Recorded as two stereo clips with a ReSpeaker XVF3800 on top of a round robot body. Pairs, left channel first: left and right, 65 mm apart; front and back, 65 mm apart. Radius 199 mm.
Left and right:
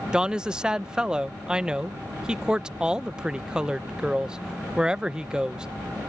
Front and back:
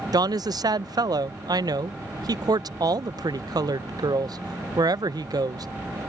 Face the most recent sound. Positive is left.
turn(degrees=-165)